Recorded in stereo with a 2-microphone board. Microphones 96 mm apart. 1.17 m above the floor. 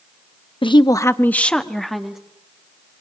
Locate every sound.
0.6 s a woman speaking: 60° left (ahead or behind), 0.8 m; by 2.2 s 5° right (ahead or behind), 2 m